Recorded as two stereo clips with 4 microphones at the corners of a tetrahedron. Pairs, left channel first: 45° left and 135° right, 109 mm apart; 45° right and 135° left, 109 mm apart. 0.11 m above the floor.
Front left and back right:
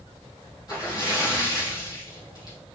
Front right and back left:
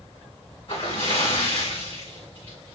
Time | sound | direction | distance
0.7 | a splash | 5° right | 4.5 m